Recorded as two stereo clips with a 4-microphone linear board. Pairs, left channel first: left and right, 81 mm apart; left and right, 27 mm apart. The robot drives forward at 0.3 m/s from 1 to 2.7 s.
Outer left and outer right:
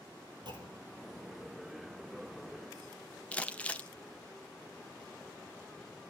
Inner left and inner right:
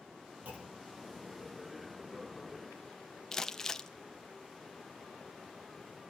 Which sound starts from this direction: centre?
Crumpling, at 3.3 s.